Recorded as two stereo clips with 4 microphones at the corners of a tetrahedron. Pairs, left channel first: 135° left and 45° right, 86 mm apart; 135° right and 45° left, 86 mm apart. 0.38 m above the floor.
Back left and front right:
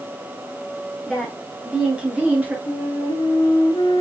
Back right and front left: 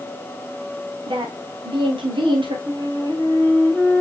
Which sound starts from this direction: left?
A flute, at 2.7 s.